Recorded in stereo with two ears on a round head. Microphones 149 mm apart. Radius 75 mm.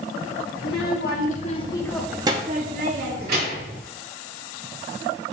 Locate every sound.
0.6 s a child speaking: 65° left (ahead or behind), 1.8 m; by 3.8 s 70° right (ahead or behind), 2 m